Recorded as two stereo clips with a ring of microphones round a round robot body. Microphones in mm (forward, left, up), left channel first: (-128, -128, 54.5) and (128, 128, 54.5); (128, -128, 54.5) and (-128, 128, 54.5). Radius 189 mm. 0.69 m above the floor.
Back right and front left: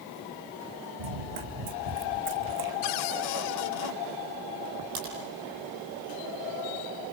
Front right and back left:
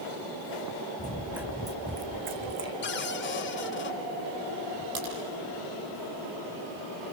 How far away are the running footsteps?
About 2.5 m.